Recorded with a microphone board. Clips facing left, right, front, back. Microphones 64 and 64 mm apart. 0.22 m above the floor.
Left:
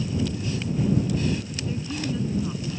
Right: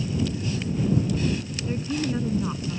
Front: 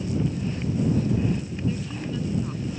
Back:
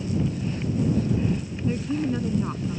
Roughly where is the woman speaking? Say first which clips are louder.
Right 3 dB, back 7 dB; behind right.